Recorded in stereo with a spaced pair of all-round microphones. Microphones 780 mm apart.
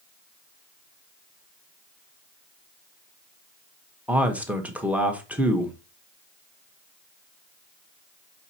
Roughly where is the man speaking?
Centre.